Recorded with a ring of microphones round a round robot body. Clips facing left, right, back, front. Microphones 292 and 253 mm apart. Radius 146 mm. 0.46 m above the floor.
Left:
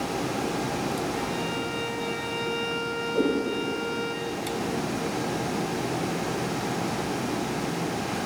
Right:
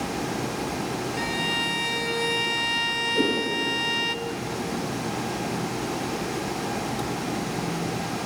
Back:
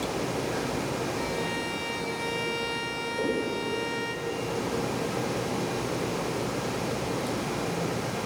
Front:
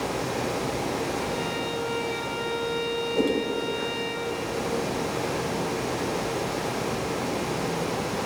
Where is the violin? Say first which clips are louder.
Even, front 2 dB; 120° right, 1.2 m.